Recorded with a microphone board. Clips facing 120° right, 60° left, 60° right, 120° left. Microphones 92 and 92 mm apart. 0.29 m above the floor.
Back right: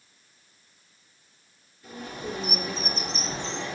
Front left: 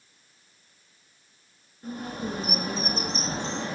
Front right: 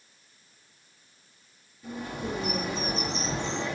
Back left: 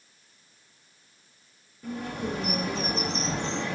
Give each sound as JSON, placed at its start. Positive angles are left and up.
{"t": 1.8, "sound": "a bird", "azimuth_deg": 105, "distance_m": 4.5}